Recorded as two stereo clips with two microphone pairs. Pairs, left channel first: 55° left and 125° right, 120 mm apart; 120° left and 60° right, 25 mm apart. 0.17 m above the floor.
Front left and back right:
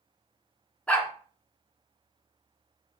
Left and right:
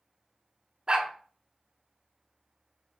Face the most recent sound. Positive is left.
turn(degrees=-25)